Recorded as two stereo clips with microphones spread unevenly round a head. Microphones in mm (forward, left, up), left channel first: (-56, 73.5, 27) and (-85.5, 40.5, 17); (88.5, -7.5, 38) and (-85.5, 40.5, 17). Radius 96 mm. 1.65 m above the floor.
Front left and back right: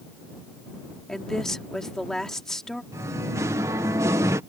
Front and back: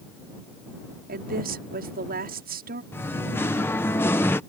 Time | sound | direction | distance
1.1 | a woman speaking | 125° left | ?
2.9 | singing | 95° right | ?